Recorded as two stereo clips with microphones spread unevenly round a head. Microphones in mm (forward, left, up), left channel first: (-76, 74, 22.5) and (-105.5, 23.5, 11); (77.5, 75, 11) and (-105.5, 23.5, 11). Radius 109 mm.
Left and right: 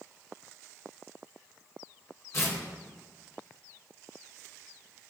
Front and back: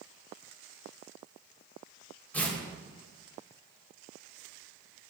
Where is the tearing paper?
95° left, 3.5 m.